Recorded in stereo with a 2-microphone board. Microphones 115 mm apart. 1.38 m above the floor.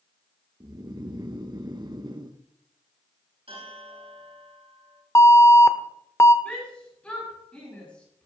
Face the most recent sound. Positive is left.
turn(degrees=10)  # may be behind; listen again after turning